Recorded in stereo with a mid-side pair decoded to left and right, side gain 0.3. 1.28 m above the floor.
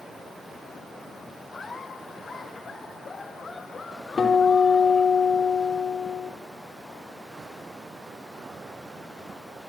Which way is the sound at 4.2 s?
55° left.